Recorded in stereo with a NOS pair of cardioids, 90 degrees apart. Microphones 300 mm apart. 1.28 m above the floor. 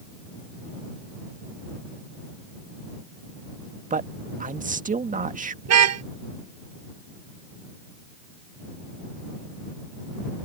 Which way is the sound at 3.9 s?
25° right.